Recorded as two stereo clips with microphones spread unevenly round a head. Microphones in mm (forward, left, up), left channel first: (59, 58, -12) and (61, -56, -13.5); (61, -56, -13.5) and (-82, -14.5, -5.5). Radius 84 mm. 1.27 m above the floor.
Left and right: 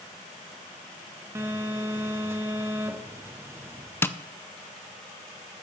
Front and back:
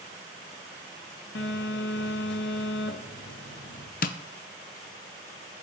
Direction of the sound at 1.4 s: 20° right.